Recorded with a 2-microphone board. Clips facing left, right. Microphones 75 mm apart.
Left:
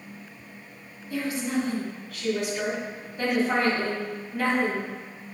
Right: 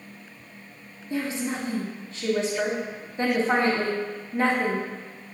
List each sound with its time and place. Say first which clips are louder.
1.1 s a woman speaking: left 1 dB; 30° right (ahead or behind), 1.2 m